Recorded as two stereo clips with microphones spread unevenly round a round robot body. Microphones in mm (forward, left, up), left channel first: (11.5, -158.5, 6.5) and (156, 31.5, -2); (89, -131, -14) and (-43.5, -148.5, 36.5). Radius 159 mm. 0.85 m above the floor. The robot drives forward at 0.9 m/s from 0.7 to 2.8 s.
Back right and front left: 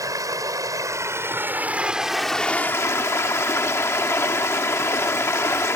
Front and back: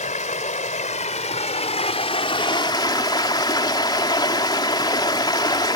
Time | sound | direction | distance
0.0 | running water | 25° right | ?